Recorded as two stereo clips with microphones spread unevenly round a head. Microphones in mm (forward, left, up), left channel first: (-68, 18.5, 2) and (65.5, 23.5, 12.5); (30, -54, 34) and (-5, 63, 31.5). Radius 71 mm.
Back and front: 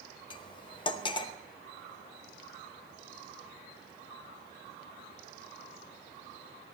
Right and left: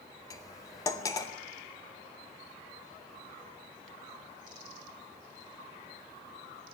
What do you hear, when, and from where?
0.3 s cutlery clinking: 130° right, 0.8 m